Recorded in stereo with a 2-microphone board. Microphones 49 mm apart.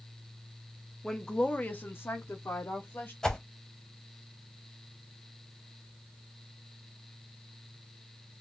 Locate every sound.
1.0 s a woman speaking: 10° left (ahead or behind), 0.6 m; by 3.1 s 55° left (ahead or behind), 0.9 m
3.2 s a whoosh: 15° left (ahead or behind), 0.6 m